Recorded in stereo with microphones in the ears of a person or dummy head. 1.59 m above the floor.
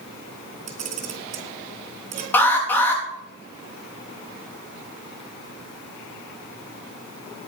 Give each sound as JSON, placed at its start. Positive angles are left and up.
{"t": 0.7, "sound": "a camera shutter", "side_deg": -35, "distance_m": 3.0}
{"t": 2.3, "sound": "an alarm", "side_deg": 10, "distance_m": 4.0}